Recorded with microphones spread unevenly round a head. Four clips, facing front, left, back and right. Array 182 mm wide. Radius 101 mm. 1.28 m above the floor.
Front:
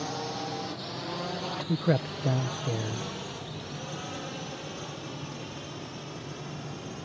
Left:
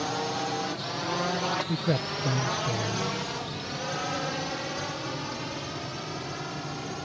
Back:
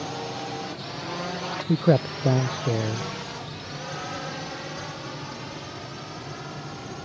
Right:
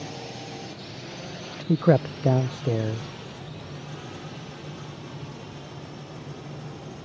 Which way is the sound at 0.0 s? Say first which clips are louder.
Left 8 dB, back 2 dB; 90° left.